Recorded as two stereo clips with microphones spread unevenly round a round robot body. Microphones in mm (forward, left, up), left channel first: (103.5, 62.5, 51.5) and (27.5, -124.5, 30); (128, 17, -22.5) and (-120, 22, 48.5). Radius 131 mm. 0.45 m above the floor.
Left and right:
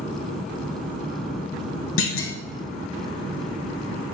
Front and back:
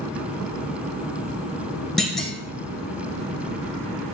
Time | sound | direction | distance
2.0 | a clunk | 80° left | 1.6 m